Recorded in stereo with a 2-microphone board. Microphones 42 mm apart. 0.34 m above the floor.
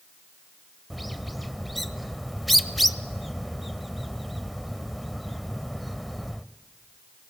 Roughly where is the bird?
Centre.